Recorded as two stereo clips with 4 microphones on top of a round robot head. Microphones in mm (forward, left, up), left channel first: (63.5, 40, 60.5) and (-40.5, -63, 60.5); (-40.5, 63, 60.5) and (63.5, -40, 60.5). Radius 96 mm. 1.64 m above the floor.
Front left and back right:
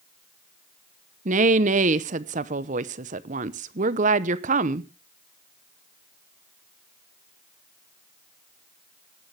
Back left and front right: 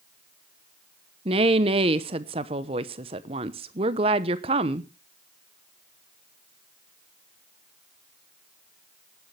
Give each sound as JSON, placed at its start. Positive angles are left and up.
{"t": 1.2, "sound": "a woman speaking", "azimuth_deg": -100, "distance_m": 0.9}